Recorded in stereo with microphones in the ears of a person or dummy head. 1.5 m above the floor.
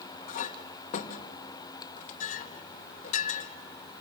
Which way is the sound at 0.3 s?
45° left (ahead or behind).